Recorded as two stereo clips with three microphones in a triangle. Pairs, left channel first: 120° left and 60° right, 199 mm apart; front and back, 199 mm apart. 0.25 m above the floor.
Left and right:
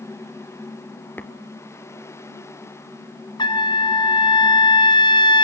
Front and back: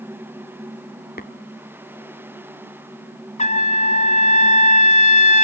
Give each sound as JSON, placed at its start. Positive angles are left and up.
{"t": 1.2, "sound": "tapping", "azimuth_deg": 40, "distance_m": 1.1}
{"t": 3.4, "sound": "a trumpet", "azimuth_deg": 55, "distance_m": 1.0}